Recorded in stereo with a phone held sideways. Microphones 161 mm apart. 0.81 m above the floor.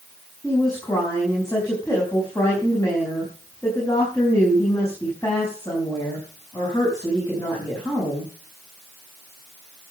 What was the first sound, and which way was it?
A woman speaking, 20° left (ahead or behind).